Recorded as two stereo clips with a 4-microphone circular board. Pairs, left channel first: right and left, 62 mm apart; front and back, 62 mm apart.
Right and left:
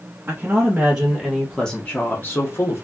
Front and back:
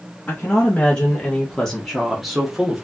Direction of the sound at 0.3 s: 55° left.